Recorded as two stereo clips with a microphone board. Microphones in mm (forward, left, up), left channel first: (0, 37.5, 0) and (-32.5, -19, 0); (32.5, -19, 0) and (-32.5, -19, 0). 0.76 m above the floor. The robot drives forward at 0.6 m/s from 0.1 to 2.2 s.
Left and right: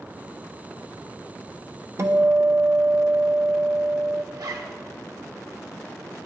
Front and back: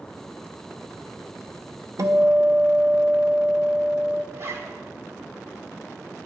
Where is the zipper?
135° right, 1.1 m.